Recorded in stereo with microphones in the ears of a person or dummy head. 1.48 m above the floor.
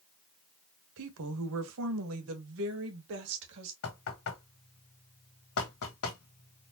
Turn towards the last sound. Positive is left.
turn(degrees=85)